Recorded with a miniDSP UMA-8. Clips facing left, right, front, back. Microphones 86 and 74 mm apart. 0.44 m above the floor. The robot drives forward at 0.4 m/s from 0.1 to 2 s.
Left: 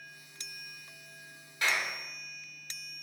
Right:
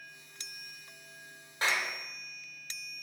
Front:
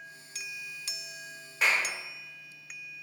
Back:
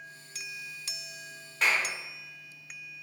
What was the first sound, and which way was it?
A clap, 85° right.